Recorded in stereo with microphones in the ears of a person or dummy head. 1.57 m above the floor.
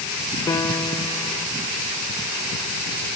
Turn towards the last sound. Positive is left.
turn(degrees=25)  # may be behind; listen again after turning